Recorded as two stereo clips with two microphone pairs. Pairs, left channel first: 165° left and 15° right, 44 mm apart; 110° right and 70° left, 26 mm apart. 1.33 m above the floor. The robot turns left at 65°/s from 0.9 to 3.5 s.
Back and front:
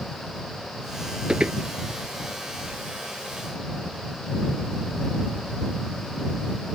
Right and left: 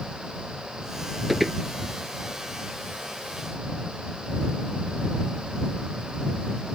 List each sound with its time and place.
1.3 s footsteps: 5° left; by 1.6 s 10° right